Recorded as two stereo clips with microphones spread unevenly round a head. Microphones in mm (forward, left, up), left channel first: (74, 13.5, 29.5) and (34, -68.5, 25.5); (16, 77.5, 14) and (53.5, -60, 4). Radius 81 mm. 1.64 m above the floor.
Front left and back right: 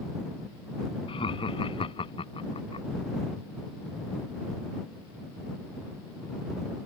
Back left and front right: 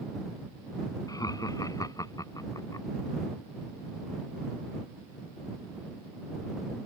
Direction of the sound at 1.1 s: 40° left.